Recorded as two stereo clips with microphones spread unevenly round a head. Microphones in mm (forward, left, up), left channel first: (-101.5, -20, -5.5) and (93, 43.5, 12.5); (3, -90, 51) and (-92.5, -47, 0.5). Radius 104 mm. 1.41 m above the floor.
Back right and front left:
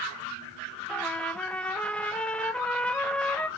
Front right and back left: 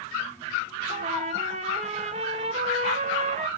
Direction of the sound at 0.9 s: 110° left.